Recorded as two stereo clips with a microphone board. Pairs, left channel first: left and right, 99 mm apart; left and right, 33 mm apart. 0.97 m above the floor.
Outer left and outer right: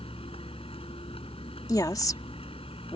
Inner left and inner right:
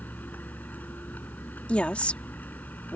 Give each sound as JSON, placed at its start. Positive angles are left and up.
{"t": 0.0, "sound": "a vehicle", "side_deg": 65}
{"t": 1.7, "sound": "a woman speaking", "side_deg": 35}